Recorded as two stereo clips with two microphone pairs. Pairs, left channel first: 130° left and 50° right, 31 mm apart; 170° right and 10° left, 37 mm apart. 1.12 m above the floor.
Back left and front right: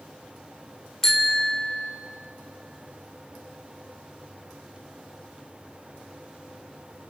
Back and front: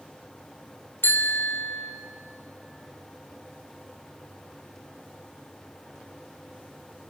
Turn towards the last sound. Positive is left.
turn(degrees=-155)